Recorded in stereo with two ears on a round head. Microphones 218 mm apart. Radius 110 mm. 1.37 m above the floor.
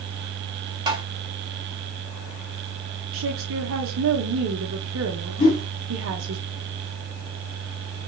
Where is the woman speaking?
60° right (ahead or behind), 1.1 m.